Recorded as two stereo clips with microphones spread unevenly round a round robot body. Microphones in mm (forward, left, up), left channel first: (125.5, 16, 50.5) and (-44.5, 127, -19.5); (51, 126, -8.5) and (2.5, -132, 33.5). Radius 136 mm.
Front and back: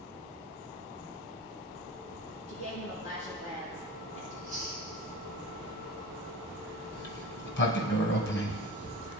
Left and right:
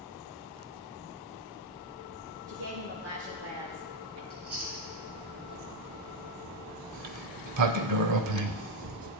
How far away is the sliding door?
About 1.0 m.